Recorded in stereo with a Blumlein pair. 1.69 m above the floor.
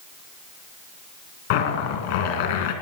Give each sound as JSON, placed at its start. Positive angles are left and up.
{"t": 1.5, "sound": "a zipper", "azimuth_deg": 55, "distance_m": 2.0}